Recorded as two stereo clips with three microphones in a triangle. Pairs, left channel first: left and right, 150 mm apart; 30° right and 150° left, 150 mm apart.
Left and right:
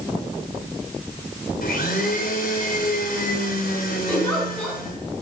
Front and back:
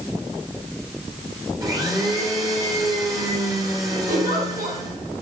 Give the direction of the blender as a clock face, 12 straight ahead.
9 o'clock.